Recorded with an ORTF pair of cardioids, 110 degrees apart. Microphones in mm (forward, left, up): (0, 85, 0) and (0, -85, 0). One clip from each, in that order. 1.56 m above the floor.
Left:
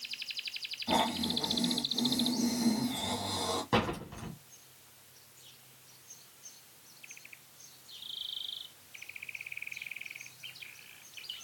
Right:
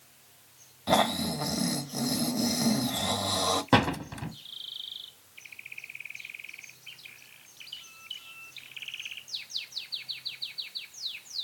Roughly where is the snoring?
Ahead right.